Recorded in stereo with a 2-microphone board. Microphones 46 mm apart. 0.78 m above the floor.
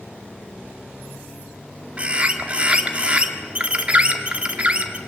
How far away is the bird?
About 1.7 m.